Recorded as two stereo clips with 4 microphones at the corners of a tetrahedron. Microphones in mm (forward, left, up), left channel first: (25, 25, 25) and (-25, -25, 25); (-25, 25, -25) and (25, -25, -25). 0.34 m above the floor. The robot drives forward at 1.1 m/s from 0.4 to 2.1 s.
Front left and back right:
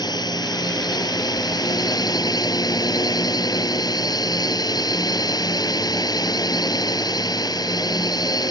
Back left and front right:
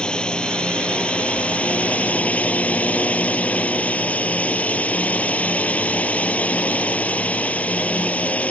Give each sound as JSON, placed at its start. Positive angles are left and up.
{"t": 0.0, "sound": "a drone", "azimuth_deg": 60}